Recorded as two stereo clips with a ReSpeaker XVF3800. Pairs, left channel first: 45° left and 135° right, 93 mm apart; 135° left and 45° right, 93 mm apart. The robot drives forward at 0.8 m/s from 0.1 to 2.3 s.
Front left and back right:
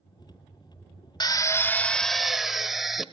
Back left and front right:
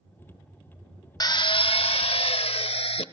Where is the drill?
90° left, 0.8 m; by 3.0 s 135° left, 1.2 m.